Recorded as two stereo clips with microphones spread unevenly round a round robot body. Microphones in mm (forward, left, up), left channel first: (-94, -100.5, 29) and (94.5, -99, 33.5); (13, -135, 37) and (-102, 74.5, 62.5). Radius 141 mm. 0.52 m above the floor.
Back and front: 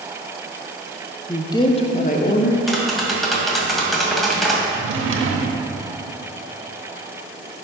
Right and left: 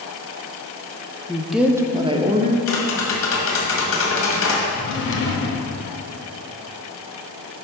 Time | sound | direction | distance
1.3 | a woman speaking | 115° right | 0.6 m
2.7 | tapping | 90° right | 1.8 m
4.7 | a drawer | 15° right | 0.9 m